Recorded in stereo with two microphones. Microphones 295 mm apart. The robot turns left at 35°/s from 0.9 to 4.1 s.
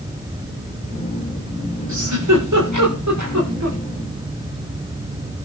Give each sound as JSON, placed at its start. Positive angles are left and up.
{"t": 1.9, "sound": "a giggle", "side_deg": -65, "distance_m": 9.0}